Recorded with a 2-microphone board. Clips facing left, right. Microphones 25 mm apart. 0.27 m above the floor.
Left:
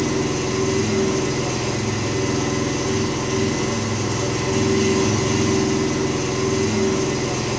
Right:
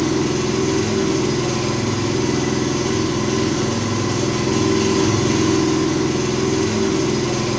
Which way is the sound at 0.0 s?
55° right (ahead or behind).